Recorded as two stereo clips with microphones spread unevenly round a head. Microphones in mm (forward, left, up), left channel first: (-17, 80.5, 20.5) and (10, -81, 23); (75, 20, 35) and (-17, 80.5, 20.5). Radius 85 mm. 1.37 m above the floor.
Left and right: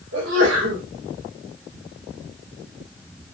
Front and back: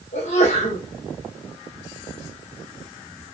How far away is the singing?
No singing in this recording.